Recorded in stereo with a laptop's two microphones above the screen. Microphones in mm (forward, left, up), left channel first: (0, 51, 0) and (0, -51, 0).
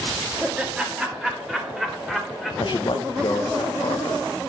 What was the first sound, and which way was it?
Laughter, 10° right (ahead or behind).